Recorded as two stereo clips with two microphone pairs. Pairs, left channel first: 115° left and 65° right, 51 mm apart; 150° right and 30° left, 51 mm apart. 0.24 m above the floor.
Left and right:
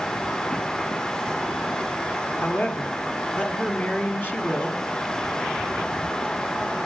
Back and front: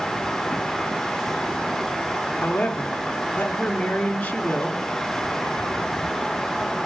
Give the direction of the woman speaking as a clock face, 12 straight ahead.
7 o'clock.